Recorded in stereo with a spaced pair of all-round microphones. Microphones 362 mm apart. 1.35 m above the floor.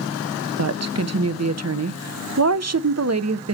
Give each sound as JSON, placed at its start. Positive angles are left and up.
{"t": 0.6, "sound": "a woman speaking", "side_deg": -45, "distance_m": 0.7}